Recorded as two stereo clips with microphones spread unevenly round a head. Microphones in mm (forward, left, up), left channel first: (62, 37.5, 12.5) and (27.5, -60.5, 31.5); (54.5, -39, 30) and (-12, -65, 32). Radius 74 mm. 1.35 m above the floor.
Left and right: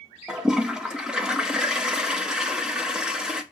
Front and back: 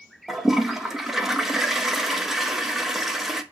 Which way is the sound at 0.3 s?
85° right.